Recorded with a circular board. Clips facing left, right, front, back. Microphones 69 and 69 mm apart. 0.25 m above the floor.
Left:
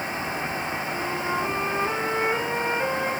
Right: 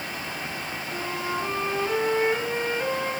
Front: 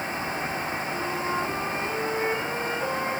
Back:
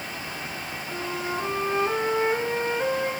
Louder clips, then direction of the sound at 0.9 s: Left 1 dB, back 1 dB; 160° left.